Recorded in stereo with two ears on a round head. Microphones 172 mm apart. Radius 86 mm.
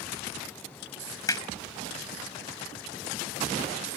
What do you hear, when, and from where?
1.3 s hammering: 20° left (ahead or behind)